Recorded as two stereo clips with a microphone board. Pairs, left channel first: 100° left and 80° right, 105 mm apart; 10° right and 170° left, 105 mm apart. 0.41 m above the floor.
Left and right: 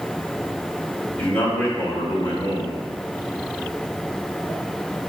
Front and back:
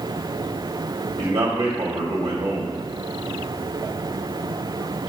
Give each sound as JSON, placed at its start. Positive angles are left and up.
{"t": 1.2, "sound": "a man speaking", "azimuth_deg": 170, "distance_m": 2.0}